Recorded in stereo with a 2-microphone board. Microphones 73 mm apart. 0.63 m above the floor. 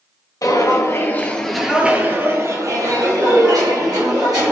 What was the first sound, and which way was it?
Footsteps, 50° left (ahead or behind).